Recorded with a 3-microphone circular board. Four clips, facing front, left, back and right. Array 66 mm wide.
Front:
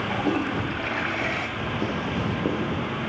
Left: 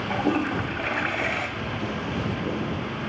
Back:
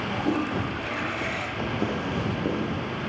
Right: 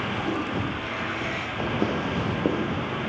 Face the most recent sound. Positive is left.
turn(degrees=-65)